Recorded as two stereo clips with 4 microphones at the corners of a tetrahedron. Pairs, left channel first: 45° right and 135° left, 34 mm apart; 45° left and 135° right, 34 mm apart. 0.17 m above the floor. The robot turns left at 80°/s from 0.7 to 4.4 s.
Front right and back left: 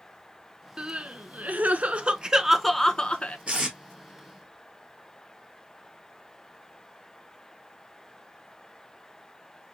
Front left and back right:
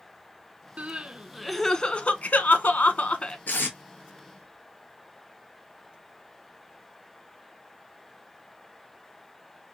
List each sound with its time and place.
0.8 s crying: 165° right, 0.5 m; by 3.4 s 15° right, 0.5 m
3.5 s tape being pulled: 80° left, 1.6 m; by 3.8 s 55° left, 1.6 m